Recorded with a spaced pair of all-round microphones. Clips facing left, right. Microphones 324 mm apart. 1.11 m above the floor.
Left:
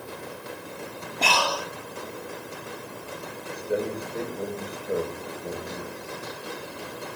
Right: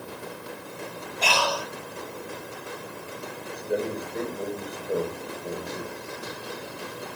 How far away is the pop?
I don't hear a pop.